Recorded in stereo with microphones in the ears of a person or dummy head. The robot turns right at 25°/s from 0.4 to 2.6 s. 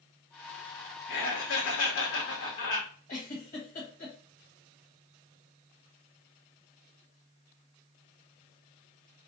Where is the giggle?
50° left (ahead or behind), 1.3 m.